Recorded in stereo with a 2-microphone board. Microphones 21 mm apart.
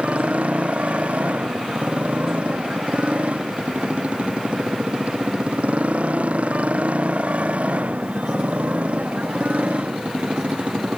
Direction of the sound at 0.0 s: 85° right.